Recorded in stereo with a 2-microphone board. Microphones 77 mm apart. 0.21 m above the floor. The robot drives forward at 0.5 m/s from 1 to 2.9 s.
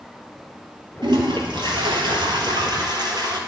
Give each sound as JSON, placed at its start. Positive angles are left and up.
{"t": 1.0, "sound": "a toilet flushing", "side_deg": -75, "distance_m": 1.7}